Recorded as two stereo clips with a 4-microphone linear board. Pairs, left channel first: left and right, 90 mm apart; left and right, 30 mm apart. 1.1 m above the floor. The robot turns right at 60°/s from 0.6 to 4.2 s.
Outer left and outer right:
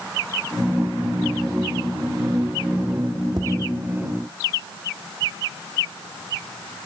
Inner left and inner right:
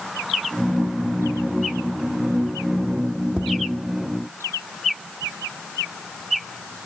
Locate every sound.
3.4 s tapping: 45° right (ahead or behind), 2 m; by 3.5 s 35° right (ahead or behind), 2 m